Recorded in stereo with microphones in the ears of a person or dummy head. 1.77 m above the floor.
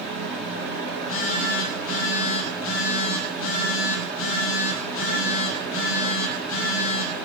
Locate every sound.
0.9 s a phone buzzing: 70° left (ahead or behind), 3.5 m